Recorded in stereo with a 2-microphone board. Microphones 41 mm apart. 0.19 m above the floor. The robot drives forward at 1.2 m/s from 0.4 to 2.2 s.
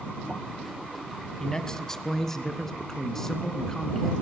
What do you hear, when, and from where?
1.4 s a man speaking: 15° left (ahead or behind), 1.1 m; by 4.1 s 10° left (ahead or behind), 1.7 m